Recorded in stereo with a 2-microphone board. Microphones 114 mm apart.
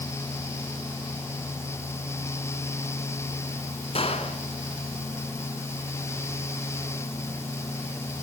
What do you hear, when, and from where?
4.0 s a gunshot: 60° left (ahead or behind), 2.5 m